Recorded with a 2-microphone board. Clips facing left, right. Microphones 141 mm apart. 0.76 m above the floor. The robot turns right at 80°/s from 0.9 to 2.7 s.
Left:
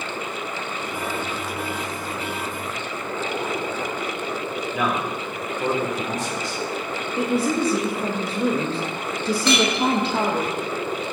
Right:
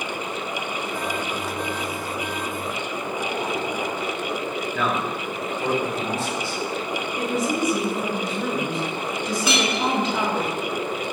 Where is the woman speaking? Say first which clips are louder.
Left 3 dB; 30° left (ahead or behind), 1.1 m.